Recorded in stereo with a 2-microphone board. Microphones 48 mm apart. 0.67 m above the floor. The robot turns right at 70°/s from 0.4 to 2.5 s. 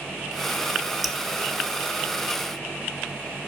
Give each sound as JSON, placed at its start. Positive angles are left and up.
{"t": 1.0, "sound": "dripping", "side_deg": 0, "distance_m": 0.9}